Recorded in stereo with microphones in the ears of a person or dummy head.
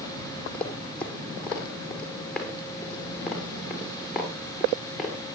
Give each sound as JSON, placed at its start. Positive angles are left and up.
{"t": 0.5, "sound": "running footsteps", "side_deg": 10, "distance_m": 3.5}